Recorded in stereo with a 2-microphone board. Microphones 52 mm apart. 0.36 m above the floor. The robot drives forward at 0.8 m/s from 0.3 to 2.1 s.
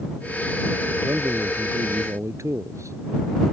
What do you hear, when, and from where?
1.0 s a man speaking: 75° right (ahead or behind); by 3.0 s 70° right (ahead or behind)